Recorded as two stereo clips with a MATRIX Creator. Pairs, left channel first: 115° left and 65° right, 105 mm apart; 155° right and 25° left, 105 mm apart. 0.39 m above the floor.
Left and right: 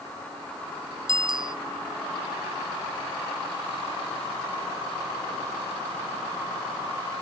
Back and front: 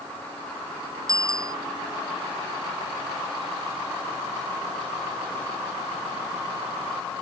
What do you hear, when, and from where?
1.1 s a bicycle bell: 30° right